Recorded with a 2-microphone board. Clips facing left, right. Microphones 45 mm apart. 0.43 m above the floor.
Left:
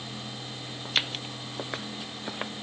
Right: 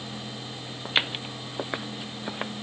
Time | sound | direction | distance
0.8 | footsteps | 20° right (ahead or behind) | ?